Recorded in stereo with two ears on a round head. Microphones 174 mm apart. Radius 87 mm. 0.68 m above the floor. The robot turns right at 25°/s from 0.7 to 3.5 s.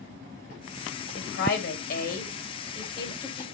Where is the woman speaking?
70° left (ahead or behind), 3.5 m; by 3.4 s 20° left (ahead or behind), 3.5 m.